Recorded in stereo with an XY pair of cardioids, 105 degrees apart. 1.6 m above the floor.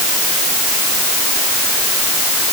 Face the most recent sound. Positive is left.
No sound to turn to.